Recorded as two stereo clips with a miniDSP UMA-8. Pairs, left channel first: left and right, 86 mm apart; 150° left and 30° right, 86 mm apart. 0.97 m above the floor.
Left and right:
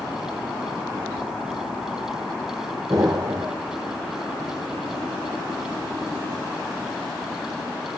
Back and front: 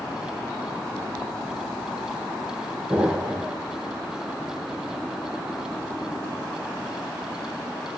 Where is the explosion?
95° right, 0.9 m.